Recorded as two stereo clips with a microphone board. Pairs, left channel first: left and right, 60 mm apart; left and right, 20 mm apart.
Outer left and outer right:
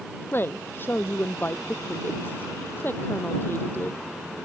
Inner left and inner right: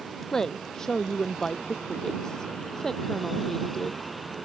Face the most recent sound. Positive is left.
turn(degrees=35)  # may be behind; listen again after turning